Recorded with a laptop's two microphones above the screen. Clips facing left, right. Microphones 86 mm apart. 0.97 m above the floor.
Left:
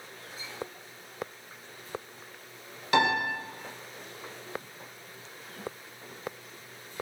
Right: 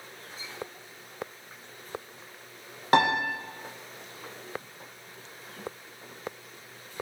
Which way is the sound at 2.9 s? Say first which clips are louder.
Right 3 dB; 40° right (ahead or behind).